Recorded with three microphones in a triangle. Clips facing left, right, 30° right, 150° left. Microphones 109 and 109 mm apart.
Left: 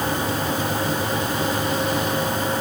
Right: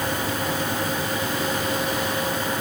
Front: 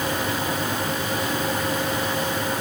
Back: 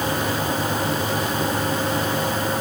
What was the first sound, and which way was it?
Only background noise.